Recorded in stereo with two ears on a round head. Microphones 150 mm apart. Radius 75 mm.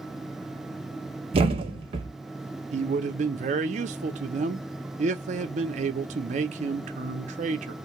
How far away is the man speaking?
About 0.5 m.